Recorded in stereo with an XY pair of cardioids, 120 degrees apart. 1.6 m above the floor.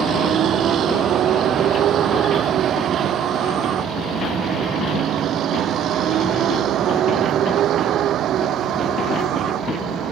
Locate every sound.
0.0 s a vehicle: 55° right; by 10.1 s 60° right